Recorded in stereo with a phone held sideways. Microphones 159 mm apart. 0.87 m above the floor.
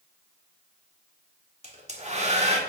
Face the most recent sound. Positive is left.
turn(degrees=-40)  # may be behind; listen again after turning